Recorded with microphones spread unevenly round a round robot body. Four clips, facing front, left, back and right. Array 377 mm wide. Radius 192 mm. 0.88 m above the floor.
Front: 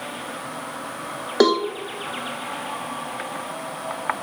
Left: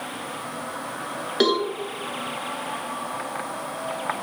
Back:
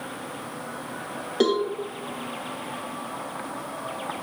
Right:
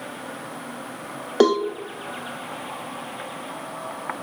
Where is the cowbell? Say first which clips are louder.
Right 4 dB, front 4 dB; 70° right, 0.8 m.